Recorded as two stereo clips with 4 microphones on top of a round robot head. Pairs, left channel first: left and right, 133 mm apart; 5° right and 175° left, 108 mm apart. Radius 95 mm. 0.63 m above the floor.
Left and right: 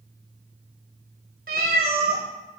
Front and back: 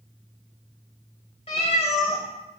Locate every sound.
1.5 s a cat meowing: 60° right, 0.8 m